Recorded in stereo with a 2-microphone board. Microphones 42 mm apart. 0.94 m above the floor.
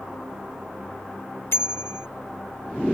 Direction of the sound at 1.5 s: 75° left (ahead or behind).